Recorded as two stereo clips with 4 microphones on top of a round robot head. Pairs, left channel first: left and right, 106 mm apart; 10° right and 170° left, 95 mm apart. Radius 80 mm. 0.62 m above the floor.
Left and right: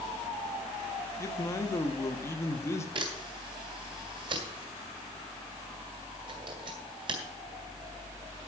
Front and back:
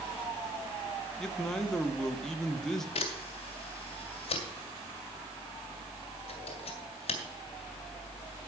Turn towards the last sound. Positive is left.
turn(degrees=-40)